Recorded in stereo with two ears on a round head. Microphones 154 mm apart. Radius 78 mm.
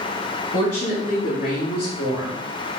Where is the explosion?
No explosion in this recording.